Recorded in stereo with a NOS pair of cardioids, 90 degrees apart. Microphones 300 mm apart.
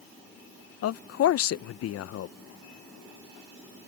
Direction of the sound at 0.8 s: 55° left.